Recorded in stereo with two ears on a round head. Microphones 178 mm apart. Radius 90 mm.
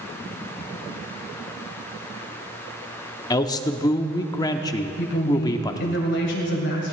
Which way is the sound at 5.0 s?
60° left (ahead or behind).